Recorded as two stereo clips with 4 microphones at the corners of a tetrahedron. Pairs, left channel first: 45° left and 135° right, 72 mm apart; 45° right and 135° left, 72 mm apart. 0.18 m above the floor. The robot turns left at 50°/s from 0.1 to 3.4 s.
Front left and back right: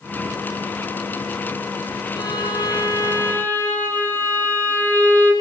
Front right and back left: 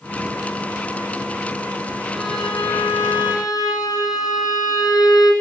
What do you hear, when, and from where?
2.1 s a violin: 50° left, 7.5 m; by 5.3 s 15° right, 7.5 m